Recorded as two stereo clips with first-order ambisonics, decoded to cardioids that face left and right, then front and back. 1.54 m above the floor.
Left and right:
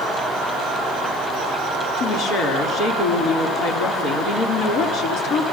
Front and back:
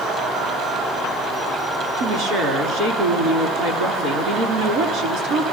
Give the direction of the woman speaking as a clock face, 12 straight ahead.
7 o'clock.